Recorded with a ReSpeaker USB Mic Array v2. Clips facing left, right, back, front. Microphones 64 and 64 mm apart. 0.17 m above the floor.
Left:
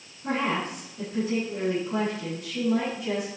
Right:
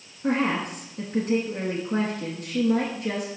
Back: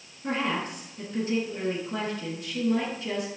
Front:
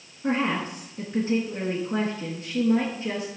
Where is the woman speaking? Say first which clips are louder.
Right 3 dB, front 3 dB; 55° right, 2.5 m.